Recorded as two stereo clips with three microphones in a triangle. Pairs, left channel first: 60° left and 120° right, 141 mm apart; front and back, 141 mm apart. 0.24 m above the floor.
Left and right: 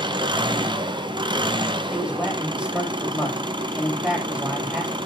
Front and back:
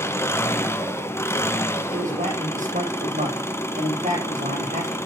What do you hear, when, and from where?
0.0 s an engine running: 70° right, 1.4 m
1.9 s a man speaking: 155° left, 8.5 m